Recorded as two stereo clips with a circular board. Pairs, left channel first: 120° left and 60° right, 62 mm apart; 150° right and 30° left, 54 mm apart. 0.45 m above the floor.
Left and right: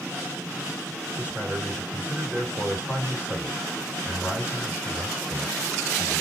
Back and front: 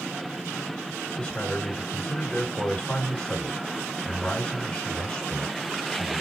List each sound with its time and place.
1.2 s a man speaking: 150° left, 1.9 m